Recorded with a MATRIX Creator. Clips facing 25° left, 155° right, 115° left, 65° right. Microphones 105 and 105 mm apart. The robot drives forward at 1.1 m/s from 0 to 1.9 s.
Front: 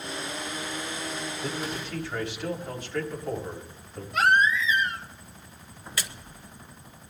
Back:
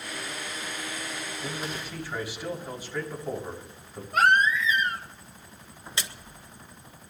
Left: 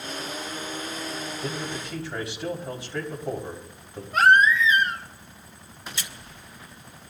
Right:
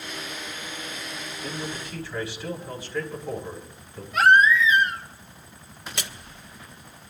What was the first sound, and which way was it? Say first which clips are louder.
A man speaking: front 1 dB, right 1 dB; 120° left.